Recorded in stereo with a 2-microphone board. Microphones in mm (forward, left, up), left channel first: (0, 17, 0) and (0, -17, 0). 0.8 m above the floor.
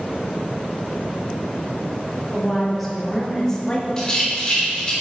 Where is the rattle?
15° left (ahead or behind), 2.5 m.